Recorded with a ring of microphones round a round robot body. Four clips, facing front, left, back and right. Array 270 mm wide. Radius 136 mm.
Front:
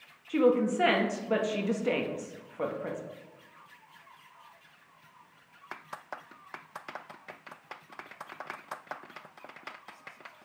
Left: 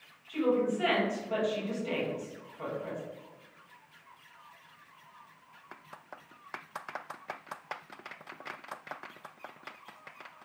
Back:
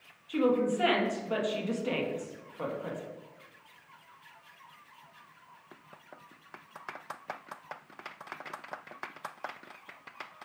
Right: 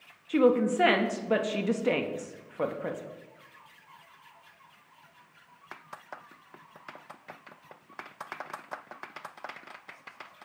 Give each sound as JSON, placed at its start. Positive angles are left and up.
{"t": 0.3, "sound": "a woman speaking", "azimuth_deg": -70, "distance_m": 1.0}